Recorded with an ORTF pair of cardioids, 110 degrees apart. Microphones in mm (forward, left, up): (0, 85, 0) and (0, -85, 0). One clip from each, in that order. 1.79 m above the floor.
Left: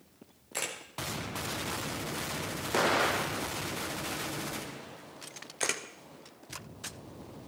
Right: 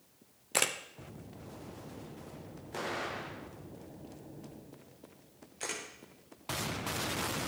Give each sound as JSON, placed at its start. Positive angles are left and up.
{"t": 0.5, "sound": "a camera shutter", "azimuth_deg": -40, "distance_m": 1.1}
{"t": 2.7, "sound": "an explosion", "azimuth_deg": 55, "distance_m": 0.6}
{"t": 5.6, "sound": "a camera shutter", "azimuth_deg": 55, "distance_m": 1.1}